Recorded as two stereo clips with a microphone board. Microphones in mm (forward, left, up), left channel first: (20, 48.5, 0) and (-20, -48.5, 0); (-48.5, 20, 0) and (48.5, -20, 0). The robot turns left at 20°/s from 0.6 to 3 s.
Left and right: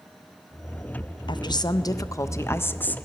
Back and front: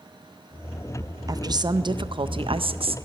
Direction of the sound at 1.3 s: 30° left.